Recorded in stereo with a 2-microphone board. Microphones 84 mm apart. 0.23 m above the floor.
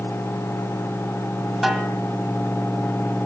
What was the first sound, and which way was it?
A snare drum, 5° right (ahead or behind).